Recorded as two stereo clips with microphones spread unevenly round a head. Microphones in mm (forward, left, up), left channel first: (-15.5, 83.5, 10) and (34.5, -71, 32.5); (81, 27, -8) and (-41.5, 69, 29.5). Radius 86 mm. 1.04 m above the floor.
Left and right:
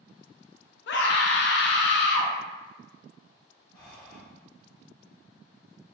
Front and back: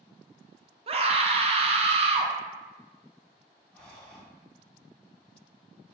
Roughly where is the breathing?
Ahead left.